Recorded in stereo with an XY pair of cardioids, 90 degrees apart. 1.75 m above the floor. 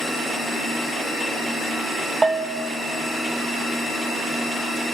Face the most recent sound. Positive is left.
turn(degrees=-35)